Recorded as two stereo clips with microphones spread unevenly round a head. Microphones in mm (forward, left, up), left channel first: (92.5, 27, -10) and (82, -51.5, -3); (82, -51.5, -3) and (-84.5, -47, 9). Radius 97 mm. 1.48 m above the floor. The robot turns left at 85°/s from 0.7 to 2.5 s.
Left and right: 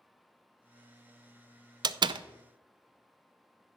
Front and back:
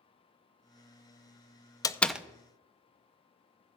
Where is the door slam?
70° right, 0.5 m; by 2.2 s 105° right, 0.5 m.